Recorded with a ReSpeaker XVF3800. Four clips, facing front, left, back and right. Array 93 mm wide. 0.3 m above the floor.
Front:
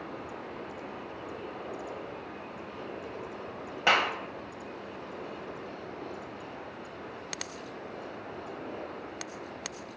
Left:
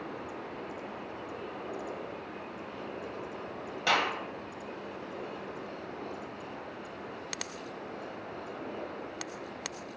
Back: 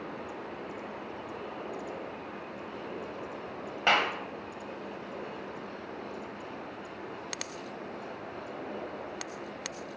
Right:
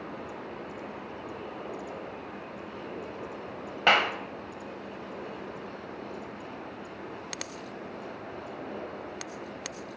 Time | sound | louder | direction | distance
3.9 | a clap | right 5 dB, front 1 dB | 80° right | 1.3 m